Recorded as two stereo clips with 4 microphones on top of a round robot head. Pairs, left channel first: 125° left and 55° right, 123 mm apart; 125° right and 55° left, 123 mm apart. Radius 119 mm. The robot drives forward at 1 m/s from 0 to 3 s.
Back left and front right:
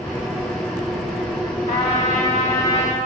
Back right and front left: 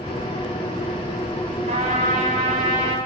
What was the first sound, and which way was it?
A trumpet, 95° left.